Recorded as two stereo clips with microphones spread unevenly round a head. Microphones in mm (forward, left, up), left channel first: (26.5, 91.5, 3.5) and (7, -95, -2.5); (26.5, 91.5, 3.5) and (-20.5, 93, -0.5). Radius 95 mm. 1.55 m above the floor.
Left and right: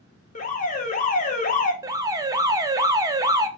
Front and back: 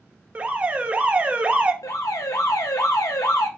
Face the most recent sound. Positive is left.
turn(degrees=-25)